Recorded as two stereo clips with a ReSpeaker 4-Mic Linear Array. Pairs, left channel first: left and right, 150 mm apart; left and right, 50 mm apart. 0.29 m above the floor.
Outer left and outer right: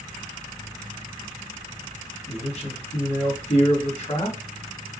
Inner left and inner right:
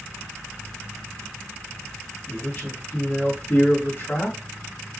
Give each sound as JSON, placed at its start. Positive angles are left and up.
{"t": 2.3, "sound": "a man speaking", "side_deg": 50, "distance_m": 2.5}